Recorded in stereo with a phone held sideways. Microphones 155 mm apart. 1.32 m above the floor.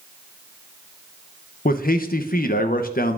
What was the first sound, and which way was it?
A man speaking, 70° left (ahead or behind).